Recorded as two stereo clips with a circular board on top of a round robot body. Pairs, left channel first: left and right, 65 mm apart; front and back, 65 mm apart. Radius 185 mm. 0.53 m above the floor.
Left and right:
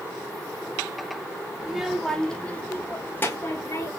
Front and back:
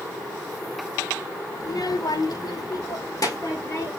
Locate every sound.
1.6 s a child speaking: 15° right, 1.2 m; by 3.9 s 35° left, 2.5 m